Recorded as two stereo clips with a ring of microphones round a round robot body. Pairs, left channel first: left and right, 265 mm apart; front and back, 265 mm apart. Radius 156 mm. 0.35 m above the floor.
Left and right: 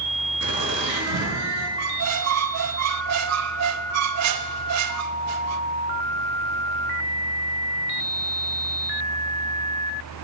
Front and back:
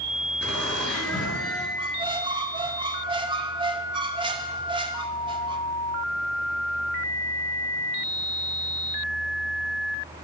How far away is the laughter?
About 6 m.